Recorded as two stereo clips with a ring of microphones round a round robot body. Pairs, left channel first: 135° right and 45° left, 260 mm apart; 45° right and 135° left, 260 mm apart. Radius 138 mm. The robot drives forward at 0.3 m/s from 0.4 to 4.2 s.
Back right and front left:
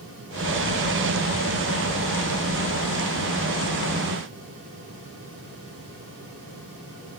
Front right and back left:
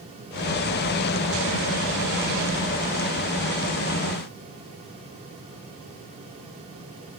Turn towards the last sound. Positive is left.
No sound to turn to.